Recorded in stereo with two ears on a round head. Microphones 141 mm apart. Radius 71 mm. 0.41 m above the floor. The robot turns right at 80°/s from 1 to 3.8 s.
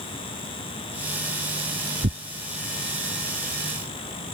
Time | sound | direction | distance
2.0 | tearing paper | 60° right (ahead or behind) | ?